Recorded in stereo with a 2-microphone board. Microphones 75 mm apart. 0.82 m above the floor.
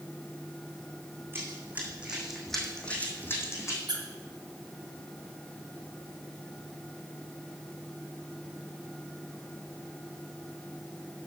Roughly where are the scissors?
I don't hear scissors.